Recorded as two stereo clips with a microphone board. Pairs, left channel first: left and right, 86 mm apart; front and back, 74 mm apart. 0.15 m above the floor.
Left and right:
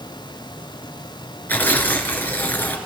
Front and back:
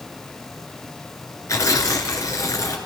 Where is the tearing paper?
25° left, 2.5 m.